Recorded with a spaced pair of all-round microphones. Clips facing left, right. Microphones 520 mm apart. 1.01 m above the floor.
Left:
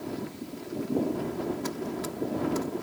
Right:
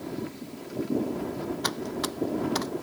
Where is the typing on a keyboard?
85° right.